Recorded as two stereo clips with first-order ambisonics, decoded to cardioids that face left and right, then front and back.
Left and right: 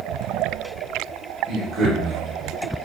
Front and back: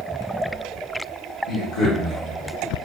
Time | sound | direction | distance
1.5 | a man speaking | 25° right | 1.1 m